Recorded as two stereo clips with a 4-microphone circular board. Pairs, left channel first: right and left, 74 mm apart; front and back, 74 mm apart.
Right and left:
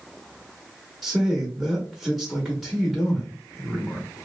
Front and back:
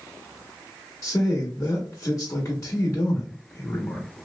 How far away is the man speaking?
About 0.8 m.